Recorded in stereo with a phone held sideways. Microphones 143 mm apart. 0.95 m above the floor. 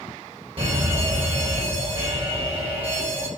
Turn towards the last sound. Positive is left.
turn(degrees=-45)  # may be behind; listen again after turning